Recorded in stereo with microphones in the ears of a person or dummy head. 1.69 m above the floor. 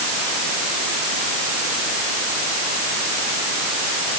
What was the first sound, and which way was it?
Only background noise.